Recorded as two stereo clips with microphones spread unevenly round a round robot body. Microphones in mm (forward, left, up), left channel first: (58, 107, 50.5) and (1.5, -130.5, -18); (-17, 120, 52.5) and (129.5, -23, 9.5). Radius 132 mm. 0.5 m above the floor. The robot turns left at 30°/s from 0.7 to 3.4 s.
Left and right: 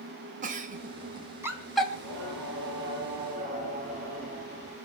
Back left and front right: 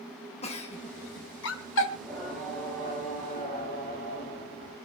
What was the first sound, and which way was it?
A giggle, 155° right.